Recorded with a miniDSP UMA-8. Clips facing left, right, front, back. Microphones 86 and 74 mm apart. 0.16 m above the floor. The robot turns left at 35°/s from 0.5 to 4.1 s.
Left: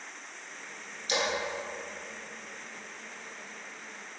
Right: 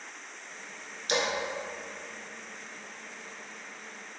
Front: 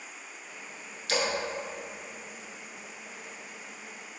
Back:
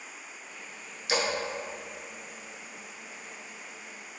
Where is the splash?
110° right, 0.7 m; by 1.3 s 115° right, 0.7 m.